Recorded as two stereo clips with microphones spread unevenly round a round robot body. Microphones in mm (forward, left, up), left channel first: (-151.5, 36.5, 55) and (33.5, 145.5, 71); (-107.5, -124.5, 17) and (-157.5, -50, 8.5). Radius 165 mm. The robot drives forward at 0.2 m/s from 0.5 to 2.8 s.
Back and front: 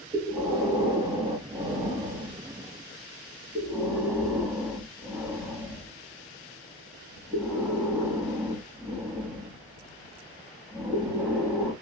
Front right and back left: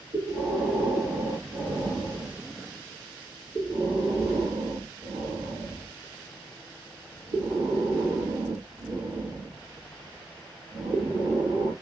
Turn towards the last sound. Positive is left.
turn(degrees=120)